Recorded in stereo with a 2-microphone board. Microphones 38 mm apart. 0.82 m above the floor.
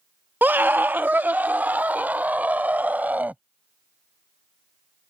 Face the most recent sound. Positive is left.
turn(degrees=-45)  # may be behind; listen again after turning